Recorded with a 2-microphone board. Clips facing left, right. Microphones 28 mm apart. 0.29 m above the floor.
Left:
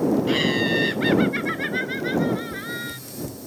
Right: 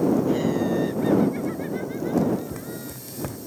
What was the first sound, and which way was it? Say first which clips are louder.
Laughter: left 2 dB; 65° left (ahead or behind).